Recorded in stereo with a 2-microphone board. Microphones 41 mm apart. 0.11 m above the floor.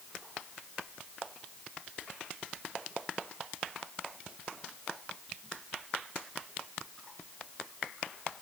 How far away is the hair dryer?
I don't hear a hair dryer.